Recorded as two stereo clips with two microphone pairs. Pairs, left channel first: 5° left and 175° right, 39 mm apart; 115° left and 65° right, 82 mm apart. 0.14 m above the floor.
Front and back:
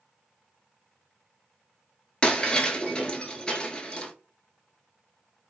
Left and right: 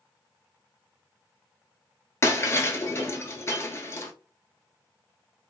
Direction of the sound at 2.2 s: 65° left.